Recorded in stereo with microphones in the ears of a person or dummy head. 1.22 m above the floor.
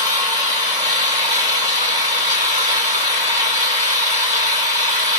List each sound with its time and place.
0.0 s an engine running: 15° left (ahead or behind), 3.5 m